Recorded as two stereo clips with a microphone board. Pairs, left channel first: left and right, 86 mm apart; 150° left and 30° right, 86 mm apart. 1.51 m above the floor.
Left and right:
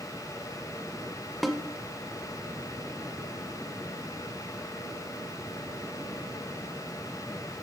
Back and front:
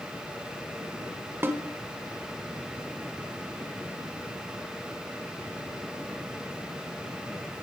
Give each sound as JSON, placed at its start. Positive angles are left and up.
{"t": 1.4, "sound": "a snare drum", "azimuth_deg": 0, "distance_m": 1.3}